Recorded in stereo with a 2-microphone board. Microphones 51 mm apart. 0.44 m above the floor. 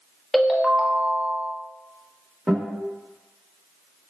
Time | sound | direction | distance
0.3 | a ringtone | centre (ahead or behind) | 0.6 m
2.5 | a guitar | 10° right (ahead or behind) | 1.6 m